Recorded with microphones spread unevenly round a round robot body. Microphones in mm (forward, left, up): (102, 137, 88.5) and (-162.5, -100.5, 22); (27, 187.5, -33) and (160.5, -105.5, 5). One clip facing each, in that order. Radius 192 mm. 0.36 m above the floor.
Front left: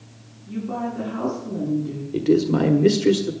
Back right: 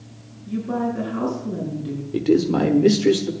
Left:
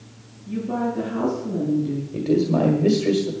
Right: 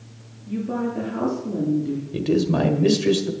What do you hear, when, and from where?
0.5 s a woman speaking: 175° left, 6 m
2.1 s a man speaking: 85° right, 1.2 m